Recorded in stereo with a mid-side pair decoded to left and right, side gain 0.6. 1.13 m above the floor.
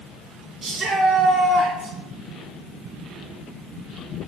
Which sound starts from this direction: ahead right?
A shout, at 0.6 s.